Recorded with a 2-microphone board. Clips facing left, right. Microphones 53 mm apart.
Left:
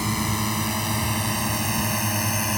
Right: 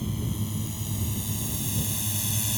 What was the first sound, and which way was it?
A drone, 65° left (ahead or behind).